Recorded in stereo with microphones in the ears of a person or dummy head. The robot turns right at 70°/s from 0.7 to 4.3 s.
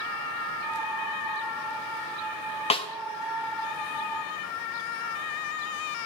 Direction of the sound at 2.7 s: 30° left (ahead or behind).